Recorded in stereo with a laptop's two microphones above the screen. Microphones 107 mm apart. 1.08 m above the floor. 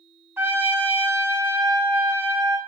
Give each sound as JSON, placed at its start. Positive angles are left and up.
{"t": 0.4, "sound": "a trumpet", "side_deg": -20, "distance_m": 1.0}